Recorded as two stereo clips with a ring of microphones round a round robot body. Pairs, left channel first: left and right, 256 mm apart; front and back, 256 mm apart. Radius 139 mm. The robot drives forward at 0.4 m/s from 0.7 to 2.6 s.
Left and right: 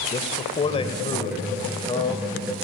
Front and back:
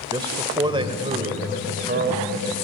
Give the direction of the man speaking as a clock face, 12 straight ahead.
8 o'clock.